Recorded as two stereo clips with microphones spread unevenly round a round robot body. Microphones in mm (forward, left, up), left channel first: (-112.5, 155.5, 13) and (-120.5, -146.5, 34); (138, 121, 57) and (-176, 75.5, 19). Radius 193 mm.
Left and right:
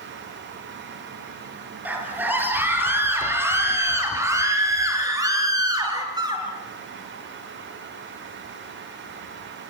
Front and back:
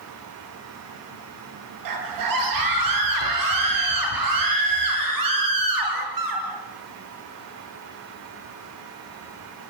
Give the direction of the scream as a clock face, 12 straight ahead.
6 o'clock.